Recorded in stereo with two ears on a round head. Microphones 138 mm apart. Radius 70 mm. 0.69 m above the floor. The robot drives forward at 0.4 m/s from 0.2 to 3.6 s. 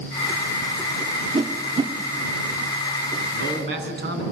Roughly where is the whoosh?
Right.